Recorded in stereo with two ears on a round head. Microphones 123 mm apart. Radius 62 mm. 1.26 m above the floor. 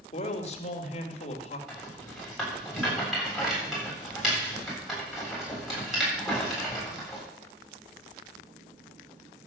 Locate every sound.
0.1 s a man speaking: 50° left (ahead or behind), 2.5 m
1.7 s a rattle: centre (ahead or behind), 8 m